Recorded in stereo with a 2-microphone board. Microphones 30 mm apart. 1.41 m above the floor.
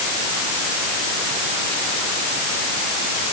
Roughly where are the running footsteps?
No running footsteps in this recording.